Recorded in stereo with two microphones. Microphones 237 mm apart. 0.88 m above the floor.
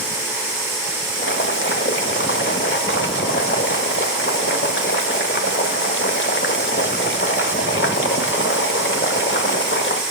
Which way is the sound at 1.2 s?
55° left (ahead or behind).